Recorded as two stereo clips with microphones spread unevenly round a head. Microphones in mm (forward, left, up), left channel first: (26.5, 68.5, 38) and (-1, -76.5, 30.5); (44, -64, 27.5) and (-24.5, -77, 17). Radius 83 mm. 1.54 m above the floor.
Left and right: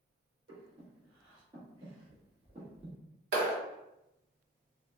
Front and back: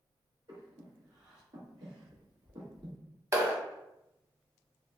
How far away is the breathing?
About 1.4 m.